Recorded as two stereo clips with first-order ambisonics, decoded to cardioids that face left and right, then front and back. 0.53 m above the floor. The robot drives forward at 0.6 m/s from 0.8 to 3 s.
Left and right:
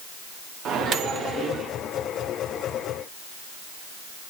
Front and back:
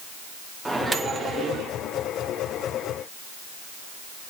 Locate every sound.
0.7 s a microwave: 95° right, 0.7 m; by 1.7 s 145° right, 0.9 m